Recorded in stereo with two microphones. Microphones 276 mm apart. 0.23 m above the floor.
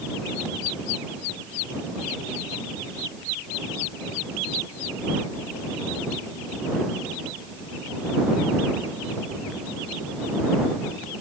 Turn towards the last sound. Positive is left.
No sound to turn to.